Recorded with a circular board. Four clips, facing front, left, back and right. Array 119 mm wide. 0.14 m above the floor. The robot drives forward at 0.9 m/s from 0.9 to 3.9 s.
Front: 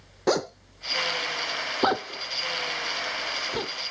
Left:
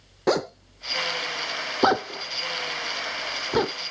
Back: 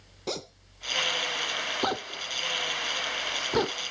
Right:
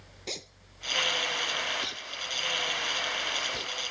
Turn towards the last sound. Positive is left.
turn(degrees=120)